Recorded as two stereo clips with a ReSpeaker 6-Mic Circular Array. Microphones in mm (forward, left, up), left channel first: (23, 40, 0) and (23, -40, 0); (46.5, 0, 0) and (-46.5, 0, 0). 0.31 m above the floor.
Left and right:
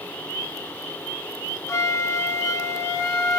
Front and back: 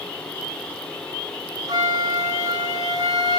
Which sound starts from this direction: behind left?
A flute, at 1.7 s.